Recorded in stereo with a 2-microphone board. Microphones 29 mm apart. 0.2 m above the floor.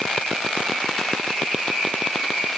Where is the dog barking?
I don't hear a dog barking.